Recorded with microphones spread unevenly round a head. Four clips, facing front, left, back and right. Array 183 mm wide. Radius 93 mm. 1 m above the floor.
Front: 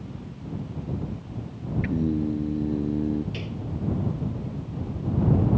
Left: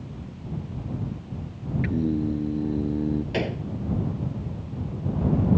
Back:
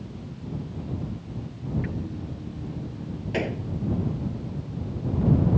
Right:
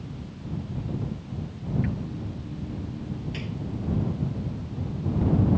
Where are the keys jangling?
No keys jangling in this recording.